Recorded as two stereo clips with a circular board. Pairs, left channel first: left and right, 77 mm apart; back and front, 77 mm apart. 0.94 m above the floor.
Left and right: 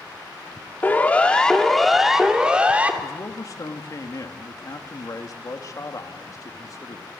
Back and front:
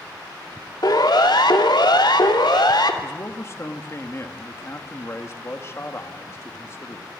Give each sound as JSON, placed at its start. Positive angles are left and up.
{"t": 0.8, "sound": "a siren", "azimuth_deg": 155, "distance_m": 2.5}
{"t": 3.0, "sound": "a man speaking", "azimuth_deg": 130, "distance_m": 1.8}